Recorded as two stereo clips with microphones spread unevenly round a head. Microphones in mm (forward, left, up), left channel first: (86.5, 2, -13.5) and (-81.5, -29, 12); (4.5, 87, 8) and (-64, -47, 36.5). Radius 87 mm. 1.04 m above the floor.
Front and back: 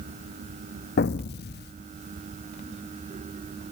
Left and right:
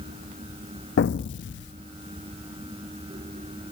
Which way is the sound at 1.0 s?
40° left.